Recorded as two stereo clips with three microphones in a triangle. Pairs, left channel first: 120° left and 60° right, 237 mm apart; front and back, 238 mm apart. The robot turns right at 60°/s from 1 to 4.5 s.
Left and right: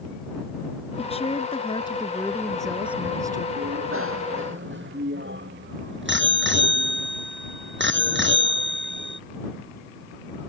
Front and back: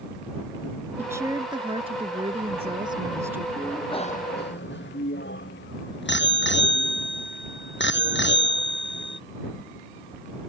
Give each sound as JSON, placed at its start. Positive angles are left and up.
{"t": 1.0, "sound": "a woman speaking", "azimuth_deg": 110}
{"t": 3.6, "sound": "a bicycle bell", "azimuth_deg": -90}